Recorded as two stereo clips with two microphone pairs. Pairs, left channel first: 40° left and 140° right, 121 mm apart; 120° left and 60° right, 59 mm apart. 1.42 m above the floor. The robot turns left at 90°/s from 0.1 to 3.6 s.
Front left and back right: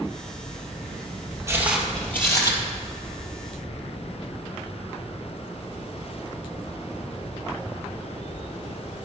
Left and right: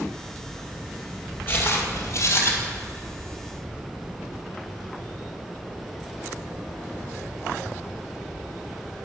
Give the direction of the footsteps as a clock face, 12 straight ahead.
7 o'clock.